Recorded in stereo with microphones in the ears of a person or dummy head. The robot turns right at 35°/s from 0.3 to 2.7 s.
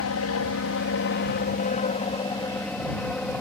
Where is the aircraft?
70° left (ahead or behind); by 3.4 s 10° left (ahead or behind).